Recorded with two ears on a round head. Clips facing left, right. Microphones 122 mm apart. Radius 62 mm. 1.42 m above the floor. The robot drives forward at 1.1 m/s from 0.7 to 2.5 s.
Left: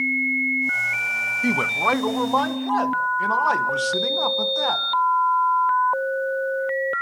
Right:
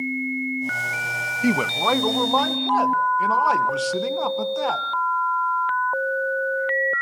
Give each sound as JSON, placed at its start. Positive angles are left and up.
{"t": 1.4, "sound": "a man speaking", "side_deg": -15, "distance_m": 0.5}